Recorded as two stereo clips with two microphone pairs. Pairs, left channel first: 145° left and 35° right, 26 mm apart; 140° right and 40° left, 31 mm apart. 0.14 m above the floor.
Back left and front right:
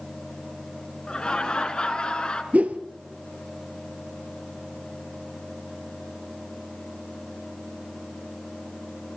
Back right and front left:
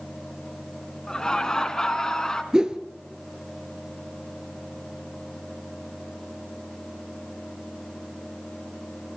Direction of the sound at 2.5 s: 25° right.